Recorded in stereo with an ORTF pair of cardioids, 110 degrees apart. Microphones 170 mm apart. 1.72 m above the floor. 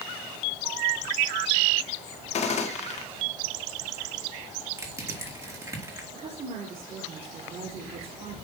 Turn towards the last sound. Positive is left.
turn(degrees=-45)